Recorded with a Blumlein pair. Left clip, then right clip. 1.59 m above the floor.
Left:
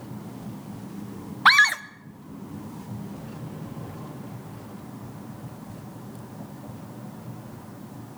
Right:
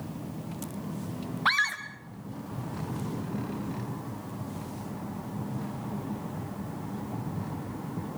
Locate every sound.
1.4 s a scream: 65° left, 1.2 m